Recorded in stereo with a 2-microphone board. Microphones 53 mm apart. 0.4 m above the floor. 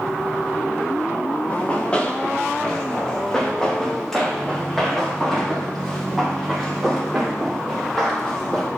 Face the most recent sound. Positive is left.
turn(degrees=-5)  # may be behind; listen again after turning